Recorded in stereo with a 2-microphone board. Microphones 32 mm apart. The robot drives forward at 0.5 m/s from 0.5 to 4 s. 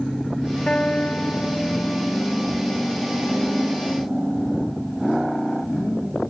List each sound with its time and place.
0.7 s a guitar: 40° left (ahead or behind); by 2.3 s 45° left (ahead or behind)